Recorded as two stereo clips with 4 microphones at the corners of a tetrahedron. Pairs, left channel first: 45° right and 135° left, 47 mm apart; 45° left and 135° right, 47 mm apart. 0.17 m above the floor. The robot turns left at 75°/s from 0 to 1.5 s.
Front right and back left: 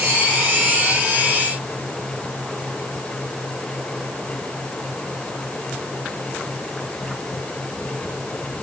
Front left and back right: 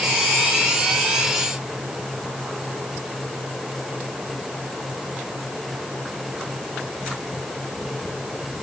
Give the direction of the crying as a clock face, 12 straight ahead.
No crying in this recording.